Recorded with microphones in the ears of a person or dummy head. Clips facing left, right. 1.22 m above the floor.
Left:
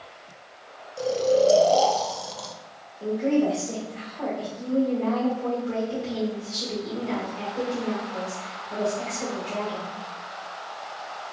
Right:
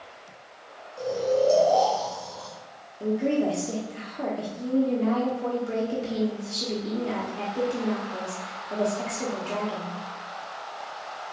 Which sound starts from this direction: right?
A woman speaking, at 3.0 s.